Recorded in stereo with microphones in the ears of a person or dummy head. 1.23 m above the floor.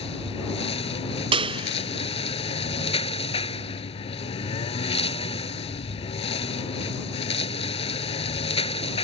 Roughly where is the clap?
Right.